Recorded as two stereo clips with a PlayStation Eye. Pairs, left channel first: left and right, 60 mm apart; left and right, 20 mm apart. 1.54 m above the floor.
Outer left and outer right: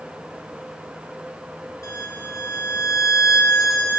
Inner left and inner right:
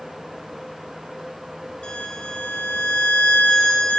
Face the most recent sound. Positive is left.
turn(degrees=60)  # may be behind; listen again after turning